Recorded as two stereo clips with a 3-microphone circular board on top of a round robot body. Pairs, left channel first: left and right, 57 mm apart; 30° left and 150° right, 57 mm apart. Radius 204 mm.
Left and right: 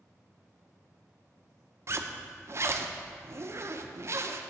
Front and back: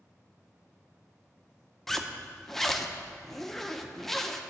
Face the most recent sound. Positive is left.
turn(degrees=-55)